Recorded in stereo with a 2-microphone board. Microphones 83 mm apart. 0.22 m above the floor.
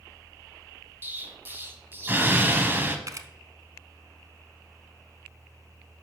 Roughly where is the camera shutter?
Right.